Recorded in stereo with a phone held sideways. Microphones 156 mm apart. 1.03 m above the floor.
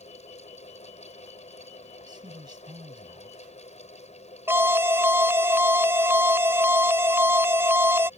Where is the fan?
45° left (ahead or behind).